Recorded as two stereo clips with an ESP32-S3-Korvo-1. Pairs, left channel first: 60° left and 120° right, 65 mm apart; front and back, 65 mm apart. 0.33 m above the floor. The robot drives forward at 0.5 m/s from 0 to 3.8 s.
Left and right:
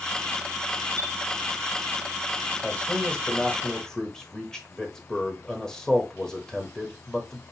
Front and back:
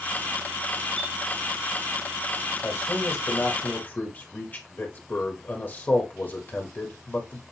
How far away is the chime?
About 1.7 m.